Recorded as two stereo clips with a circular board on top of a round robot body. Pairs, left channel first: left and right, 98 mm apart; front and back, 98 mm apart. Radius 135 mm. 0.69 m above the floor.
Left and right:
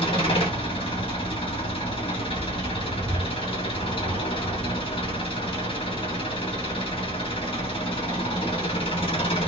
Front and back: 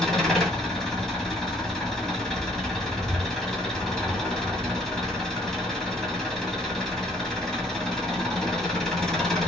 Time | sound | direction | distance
0.0 | an engine running | 85° left | 1.7 m